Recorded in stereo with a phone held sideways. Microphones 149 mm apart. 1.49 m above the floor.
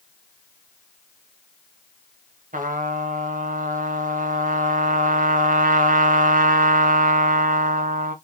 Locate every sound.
2.5 s a trumpet: 65° right (ahead or behind), 1.1 m